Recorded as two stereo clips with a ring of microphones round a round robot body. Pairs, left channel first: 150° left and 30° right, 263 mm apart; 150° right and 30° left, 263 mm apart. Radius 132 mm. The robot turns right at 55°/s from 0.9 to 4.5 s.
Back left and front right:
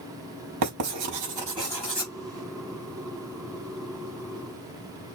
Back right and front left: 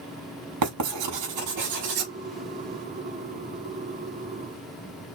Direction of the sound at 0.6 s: 5° left.